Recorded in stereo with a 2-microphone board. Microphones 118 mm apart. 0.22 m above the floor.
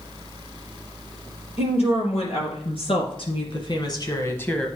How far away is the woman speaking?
About 4.5 m.